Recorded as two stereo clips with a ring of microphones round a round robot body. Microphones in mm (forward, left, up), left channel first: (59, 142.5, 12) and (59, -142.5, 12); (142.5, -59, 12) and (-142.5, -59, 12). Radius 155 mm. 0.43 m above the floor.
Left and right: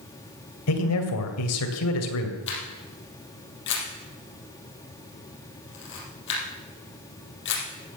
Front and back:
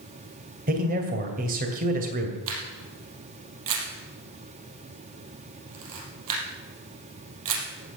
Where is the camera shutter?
145° left, 4 m.